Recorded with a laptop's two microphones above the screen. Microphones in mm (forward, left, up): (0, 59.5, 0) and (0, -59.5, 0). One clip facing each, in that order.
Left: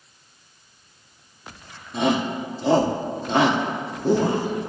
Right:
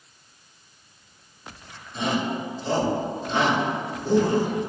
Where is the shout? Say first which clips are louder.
Left 4 dB; 80° left, 1.6 m.